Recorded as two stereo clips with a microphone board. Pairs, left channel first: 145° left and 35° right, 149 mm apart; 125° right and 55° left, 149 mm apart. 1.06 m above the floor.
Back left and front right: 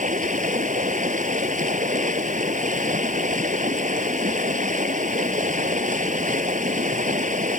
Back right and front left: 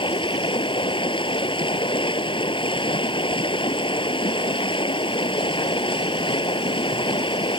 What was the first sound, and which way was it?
Running water, 70° right.